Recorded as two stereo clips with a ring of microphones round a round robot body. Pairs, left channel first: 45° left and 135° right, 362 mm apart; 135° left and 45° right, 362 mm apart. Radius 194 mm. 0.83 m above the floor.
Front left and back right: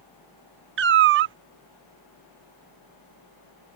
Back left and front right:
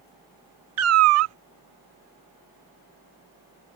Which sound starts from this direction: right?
A cat meowing, at 0.8 s.